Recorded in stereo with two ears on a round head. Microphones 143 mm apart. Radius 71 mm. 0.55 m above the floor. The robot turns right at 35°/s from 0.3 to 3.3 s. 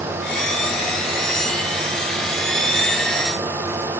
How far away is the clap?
No clap in this recording.